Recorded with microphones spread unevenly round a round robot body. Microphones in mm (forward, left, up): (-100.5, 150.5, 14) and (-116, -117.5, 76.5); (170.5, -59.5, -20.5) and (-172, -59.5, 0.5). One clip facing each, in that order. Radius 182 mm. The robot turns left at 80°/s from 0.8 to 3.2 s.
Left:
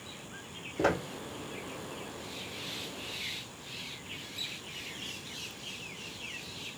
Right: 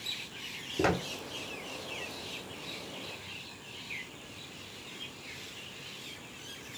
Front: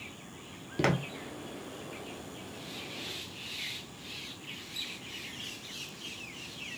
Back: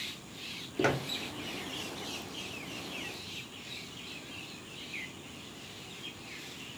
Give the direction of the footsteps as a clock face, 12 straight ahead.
2 o'clock.